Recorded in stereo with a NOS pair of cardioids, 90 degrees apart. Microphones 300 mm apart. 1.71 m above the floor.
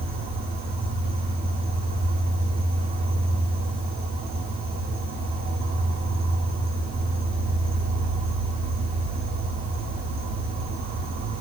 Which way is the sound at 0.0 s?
65° right.